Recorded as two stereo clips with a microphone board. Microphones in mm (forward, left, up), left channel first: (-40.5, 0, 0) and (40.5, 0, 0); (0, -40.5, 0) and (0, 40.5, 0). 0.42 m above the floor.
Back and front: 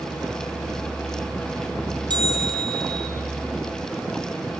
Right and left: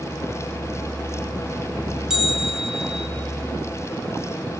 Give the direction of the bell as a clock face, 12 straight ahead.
12 o'clock.